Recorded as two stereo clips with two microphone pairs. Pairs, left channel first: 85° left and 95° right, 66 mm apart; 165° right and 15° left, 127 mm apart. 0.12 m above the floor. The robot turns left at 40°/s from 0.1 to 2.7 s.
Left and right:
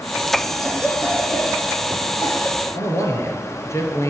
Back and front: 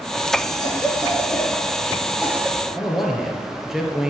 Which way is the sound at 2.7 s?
105° left.